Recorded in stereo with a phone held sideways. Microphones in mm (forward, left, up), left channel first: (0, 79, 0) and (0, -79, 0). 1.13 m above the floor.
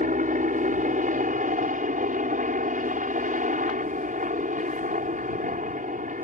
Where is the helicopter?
55° right (ahead or behind).